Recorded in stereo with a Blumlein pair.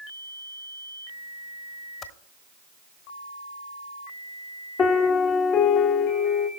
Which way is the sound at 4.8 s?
30° left.